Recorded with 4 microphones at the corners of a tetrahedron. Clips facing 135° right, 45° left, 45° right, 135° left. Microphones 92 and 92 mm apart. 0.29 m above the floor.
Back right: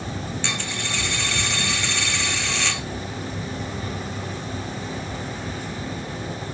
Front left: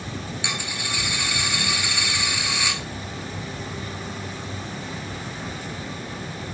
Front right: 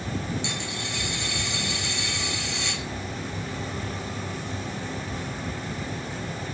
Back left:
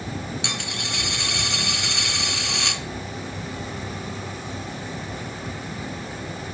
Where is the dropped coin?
125° left, 1.0 m.